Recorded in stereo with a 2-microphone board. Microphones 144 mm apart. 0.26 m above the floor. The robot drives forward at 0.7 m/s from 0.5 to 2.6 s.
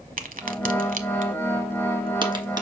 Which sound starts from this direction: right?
A crack, at 0.2 s.